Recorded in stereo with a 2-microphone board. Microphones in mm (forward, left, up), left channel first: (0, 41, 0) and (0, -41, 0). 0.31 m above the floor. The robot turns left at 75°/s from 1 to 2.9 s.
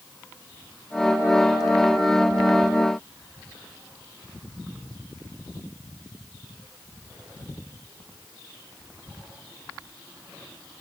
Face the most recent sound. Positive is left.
No sound to turn to.